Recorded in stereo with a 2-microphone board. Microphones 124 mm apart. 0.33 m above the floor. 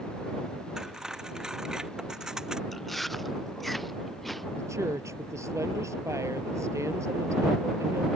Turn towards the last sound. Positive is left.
turn(degrees=-25)  # may be behind; listen again after turning